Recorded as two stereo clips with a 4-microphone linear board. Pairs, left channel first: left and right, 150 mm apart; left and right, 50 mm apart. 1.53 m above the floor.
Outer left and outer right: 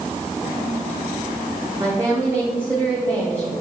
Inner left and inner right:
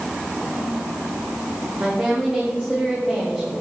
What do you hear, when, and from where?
1.8 s a woman speaking: 20° right (ahead or behind), 1.0 m